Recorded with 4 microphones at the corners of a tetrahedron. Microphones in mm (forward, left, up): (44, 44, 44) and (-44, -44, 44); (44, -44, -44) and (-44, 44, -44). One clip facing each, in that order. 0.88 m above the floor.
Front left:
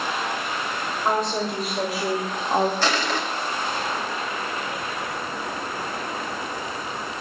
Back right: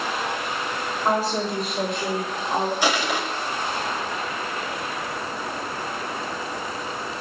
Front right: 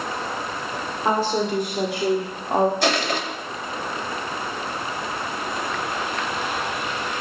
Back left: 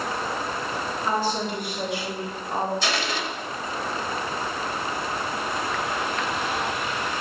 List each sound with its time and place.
1.1 s a woman speaking: 50° right, 2.5 m; by 2.7 s 15° right, 1.5 m
2.8 s crushing: 60° right, 2 m